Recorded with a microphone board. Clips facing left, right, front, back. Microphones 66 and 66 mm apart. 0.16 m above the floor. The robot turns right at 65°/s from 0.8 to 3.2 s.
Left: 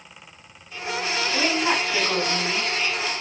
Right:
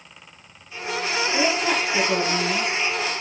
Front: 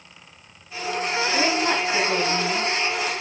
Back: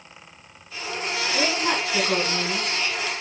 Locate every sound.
1.3 s a woman speaking: 70° left, 1.6 m; by 2.7 s 160° left, 1.6 m